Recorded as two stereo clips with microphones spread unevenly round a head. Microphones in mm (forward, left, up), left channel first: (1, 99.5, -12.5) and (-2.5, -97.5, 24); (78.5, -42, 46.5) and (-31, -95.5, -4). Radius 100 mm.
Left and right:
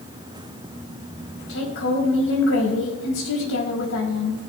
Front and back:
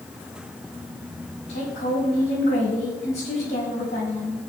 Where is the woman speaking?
70° left, 5.5 m.